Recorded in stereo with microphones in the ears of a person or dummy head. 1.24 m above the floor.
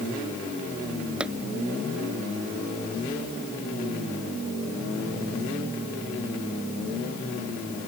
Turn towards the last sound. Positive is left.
turn(degrees=-5)  # may be behind; listen again after turning